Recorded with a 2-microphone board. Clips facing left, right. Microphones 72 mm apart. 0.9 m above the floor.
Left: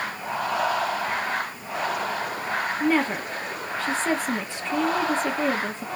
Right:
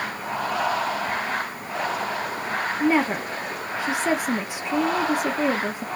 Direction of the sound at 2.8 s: 15° right (ahead or behind).